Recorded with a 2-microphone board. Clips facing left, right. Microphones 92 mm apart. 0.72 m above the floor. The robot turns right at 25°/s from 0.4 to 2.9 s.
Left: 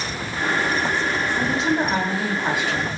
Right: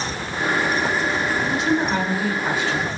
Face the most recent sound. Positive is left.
turn(degrees=170)